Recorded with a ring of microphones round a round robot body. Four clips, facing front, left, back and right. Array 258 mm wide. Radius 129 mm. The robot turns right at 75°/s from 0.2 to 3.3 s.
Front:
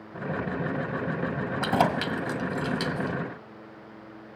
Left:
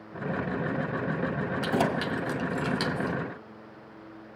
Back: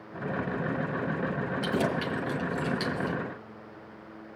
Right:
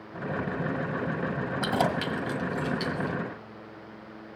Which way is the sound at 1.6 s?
25° right.